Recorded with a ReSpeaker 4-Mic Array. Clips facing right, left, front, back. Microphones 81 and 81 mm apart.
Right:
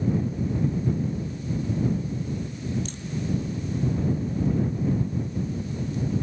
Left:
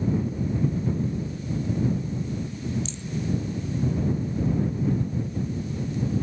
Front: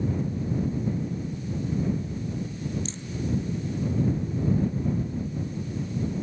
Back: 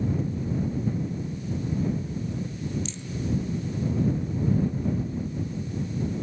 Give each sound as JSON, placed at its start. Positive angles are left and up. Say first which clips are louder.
{"t": 2.9, "sound": "a rattle", "louder": "even, front 1 dB", "azimuth_deg": -50}